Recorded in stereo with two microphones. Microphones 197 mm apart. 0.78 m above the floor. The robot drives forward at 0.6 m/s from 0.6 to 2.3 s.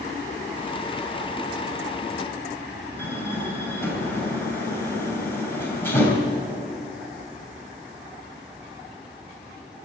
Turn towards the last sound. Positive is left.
turn(degrees=10)  # may be behind; listen again after turning